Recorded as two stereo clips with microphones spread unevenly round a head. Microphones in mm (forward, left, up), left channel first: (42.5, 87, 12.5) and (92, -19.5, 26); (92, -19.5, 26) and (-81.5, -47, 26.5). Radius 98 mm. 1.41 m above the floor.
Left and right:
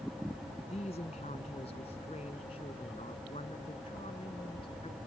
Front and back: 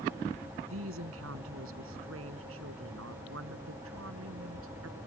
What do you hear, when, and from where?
0.7 s a woman speaking: 175° left; by 5.0 s straight behind